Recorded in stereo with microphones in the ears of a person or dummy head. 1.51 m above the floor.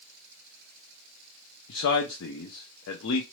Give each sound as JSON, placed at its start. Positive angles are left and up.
{"t": 1.7, "sound": "a man speaking", "side_deg": 70, "distance_m": 0.6}